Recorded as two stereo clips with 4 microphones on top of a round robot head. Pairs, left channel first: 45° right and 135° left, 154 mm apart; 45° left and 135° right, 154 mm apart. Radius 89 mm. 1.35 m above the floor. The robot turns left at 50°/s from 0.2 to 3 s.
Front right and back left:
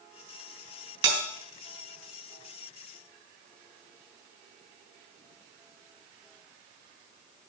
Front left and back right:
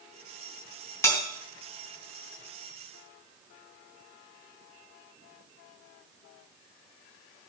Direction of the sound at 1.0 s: 120° left.